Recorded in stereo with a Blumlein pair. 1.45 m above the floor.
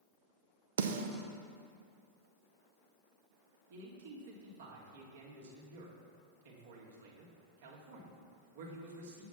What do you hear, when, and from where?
0.8 s a snare drum: 65° right, 0.7 m
3.7 s a man speaking: 60° right, 2 m